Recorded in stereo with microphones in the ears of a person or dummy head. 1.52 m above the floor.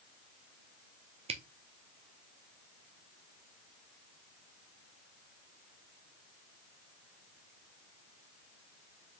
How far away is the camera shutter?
About 0.6 m.